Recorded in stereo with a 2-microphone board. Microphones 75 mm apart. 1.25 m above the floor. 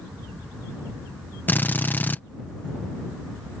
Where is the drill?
25° left (ahead or behind).